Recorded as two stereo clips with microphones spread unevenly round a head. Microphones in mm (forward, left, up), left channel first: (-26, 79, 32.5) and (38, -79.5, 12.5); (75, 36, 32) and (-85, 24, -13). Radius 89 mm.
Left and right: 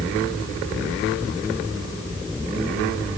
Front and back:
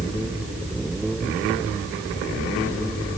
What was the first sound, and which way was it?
Only background noise.